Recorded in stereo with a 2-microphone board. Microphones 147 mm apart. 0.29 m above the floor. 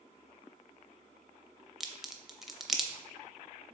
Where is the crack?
Centre (ahead or behind), 0.5 m.